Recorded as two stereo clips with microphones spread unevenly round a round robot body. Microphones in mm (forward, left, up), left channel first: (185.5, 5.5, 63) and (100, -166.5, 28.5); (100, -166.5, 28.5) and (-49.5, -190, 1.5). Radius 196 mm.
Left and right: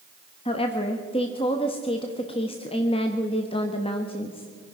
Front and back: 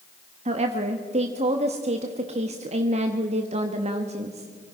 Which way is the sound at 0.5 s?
135° left.